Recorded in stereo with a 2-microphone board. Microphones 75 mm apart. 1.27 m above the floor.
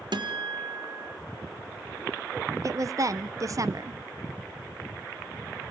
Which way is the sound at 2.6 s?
45° right (ahead or behind).